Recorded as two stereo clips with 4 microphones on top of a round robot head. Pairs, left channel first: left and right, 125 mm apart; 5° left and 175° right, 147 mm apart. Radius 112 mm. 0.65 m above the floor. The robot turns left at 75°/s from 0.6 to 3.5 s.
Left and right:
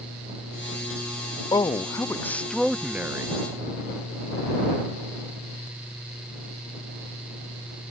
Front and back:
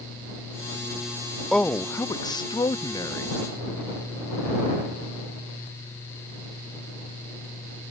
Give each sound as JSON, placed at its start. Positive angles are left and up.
{"t": 1.5, "sound": "a man speaking", "azimuth_deg": 85}